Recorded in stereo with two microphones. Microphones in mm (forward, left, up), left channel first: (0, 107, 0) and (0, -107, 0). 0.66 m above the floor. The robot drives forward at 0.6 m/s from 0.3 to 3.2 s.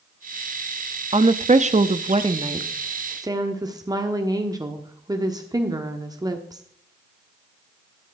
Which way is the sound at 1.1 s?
30° right (ahead or behind).